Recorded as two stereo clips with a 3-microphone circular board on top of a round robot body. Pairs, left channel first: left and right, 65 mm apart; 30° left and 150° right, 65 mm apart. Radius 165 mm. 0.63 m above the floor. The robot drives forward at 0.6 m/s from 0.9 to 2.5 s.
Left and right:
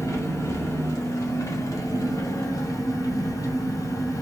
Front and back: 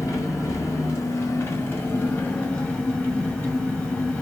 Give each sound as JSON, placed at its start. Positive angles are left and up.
{"t": 0.0, "sound": "an engine running", "azimuth_deg": 60, "distance_m": 1.8}